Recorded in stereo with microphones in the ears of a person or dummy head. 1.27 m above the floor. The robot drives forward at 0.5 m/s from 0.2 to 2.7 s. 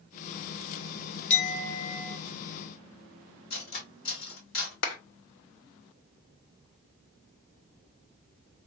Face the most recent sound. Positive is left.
turn(degrees=75)  # may be behind; listen again after turning